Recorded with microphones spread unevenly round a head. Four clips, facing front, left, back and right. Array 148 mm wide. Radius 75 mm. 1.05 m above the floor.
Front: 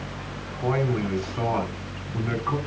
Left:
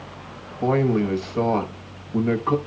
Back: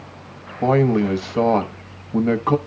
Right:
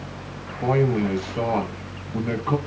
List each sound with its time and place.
0.6 s a man speaking: 170° left, 1.2 m